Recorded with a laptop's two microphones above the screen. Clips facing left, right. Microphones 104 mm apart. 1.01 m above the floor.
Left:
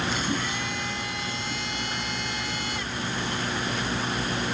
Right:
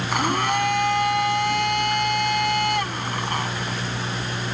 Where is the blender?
60° right (ahead or behind).